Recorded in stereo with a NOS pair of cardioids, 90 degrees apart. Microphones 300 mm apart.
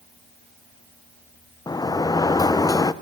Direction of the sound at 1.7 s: 10° left.